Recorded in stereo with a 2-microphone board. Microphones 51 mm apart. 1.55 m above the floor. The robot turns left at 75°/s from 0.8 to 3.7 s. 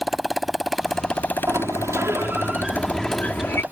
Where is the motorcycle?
175° right; by 3.7 s 35° right.